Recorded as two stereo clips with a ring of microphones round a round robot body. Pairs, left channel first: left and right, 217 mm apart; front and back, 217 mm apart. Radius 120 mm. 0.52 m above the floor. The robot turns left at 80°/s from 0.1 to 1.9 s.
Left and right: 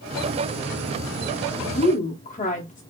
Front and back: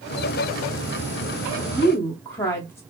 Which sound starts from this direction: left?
A woman speaking, at 1.7 s.